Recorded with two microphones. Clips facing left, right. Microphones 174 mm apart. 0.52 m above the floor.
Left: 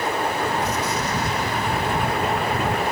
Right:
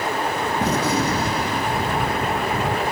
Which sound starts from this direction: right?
A gunshot, at 0.6 s.